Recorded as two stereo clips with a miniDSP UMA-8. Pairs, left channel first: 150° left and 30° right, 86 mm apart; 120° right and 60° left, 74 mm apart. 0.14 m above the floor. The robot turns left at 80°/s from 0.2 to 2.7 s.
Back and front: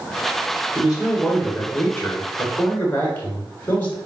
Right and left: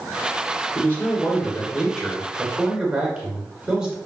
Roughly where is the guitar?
No guitar in this recording.